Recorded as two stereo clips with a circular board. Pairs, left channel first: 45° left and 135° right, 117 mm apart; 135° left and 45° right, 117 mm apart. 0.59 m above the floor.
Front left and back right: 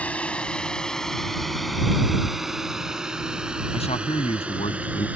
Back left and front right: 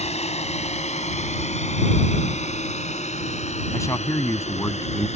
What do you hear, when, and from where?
0.0 s a drone: 120° left; by 5.2 s 145° left
3.7 s a man speaking: 70° left